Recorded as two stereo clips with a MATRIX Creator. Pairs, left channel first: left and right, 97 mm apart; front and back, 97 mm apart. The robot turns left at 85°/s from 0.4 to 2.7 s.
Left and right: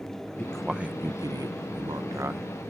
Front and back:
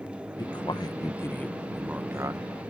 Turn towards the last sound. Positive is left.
turn(degrees=-175)